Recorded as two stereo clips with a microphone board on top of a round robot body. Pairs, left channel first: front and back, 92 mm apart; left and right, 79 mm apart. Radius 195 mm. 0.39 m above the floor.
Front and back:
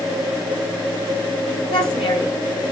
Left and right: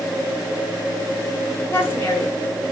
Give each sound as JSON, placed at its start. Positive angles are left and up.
{"t": 1.7, "sound": "a woman speaking", "azimuth_deg": 30, "distance_m": 8.0}